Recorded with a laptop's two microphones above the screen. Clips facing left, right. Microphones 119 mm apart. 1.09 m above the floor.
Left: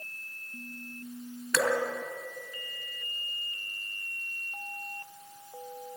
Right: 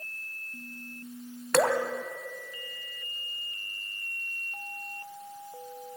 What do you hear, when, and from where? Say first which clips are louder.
1.5 s dripping: right 4 dB; 55° right (ahead or behind), 1.6 m